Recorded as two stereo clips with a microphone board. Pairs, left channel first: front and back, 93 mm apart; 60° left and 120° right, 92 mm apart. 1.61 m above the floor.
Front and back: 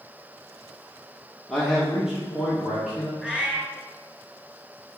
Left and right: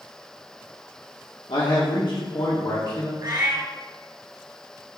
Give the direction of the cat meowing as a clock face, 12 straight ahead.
3 o'clock.